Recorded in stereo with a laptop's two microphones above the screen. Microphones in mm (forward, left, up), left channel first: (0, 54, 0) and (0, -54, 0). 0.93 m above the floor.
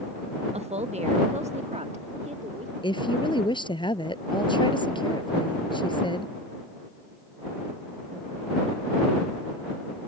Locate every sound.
0.5 s a woman speaking: 70° right (ahead or behind); by 2.7 s 80° right
2.8 s a woman speaking: 45° left (ahead or behind)